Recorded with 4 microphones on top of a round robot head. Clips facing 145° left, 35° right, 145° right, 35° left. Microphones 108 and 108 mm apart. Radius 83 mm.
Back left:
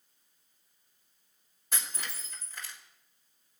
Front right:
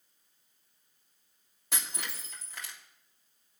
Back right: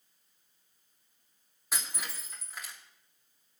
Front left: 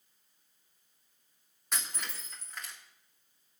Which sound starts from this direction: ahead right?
Breaking glass, at 1.7 s.